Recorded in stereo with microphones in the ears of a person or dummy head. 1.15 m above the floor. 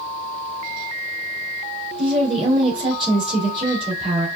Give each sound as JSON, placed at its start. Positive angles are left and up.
{"t": 2.0, "sound": "a woman speaking", "side_deg": -25, "distance_m": 2.5}